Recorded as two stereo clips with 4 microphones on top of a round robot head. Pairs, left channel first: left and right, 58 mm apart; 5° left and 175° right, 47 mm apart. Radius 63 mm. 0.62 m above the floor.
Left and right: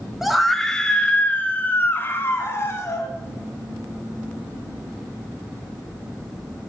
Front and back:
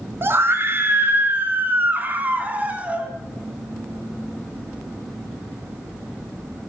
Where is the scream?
175° right, 1.2 m; by 3.1 s 130° left, 1.9 m.